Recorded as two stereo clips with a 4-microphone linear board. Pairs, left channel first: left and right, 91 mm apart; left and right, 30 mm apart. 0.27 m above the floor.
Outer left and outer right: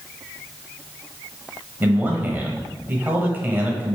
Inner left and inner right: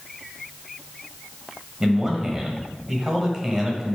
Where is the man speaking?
20° right (ahead or behind), 1.0 m.